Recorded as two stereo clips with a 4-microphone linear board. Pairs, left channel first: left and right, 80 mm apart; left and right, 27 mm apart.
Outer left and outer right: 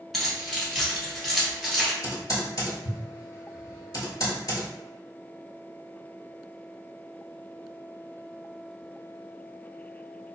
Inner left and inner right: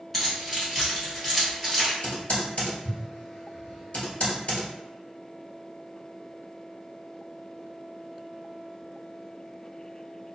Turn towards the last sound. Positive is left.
turn(degrees=45)  # may be behind; listen again after turning